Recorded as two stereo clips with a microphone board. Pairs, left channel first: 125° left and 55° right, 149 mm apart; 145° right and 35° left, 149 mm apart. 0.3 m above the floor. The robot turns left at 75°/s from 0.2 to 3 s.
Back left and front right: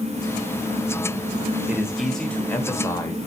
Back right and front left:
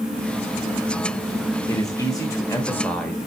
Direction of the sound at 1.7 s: 120° right.